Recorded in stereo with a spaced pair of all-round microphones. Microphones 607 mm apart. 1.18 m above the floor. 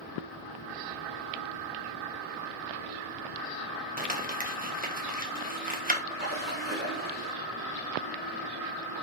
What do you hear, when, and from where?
4.0 s crumpling: 15° right (ahead or behind), 1.1 m
6.1 s a splash: 15° right (ahead or behind), 3 m